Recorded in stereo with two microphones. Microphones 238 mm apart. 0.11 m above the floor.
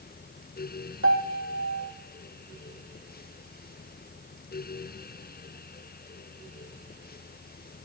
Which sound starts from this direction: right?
A piano, at 1.0 s.